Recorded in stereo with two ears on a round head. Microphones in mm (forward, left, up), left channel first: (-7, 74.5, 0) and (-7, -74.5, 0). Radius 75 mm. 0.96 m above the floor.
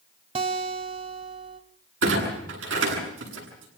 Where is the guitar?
35° right (ahead or behind), 1.3 m.